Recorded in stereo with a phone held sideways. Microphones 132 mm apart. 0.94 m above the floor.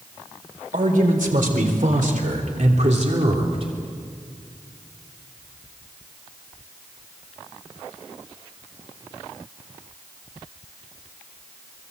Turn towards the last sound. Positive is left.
turn(degrees=-45)  # may be behind; listen again after turning